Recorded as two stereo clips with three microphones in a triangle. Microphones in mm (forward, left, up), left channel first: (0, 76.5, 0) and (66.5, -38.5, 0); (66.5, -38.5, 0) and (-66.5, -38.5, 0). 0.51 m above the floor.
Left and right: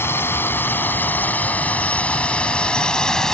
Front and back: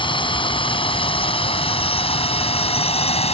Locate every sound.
0.0 s a drone: 50° left; by 3.3 s 35° left